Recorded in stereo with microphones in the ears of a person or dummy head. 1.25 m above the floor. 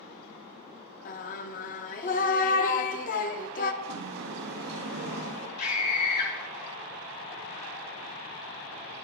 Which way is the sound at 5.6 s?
55° left (ahead or behind).